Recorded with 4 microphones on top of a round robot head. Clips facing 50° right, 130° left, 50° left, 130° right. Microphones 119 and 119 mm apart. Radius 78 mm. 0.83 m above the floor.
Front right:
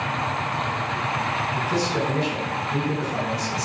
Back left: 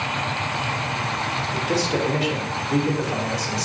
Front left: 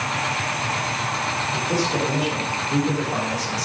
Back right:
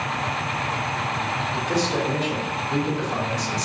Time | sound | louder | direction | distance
1.5 | a man speaking | back left 3 dB, even | 135° left | 3 m